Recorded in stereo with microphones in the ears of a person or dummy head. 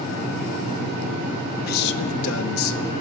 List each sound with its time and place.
1.7 s a man speaking: 55° left (ahead or behind), 1.0 m; by 2.9 s 65° left (ahead or behind), 1.0 m